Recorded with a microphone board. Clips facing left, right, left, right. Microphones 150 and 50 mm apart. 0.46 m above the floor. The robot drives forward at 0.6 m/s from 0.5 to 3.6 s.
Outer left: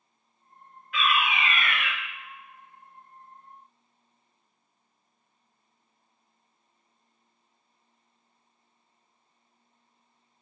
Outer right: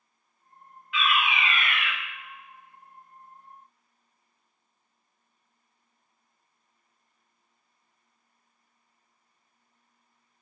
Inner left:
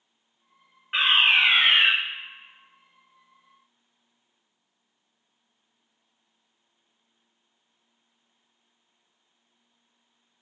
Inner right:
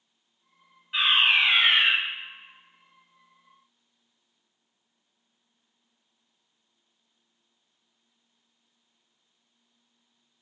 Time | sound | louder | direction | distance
0.9 | a fire alarm | even, inner left 2 dB | 45° left (ahead or behind) | 2.5 m